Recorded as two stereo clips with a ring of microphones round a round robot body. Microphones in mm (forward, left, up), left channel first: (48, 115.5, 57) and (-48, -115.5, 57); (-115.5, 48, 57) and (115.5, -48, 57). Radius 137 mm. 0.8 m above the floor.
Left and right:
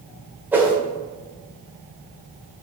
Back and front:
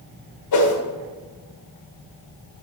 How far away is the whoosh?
About 1.7 m.